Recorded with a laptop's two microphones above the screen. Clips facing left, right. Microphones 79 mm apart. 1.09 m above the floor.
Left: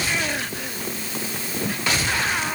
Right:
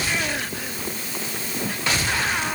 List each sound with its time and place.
Only background noise.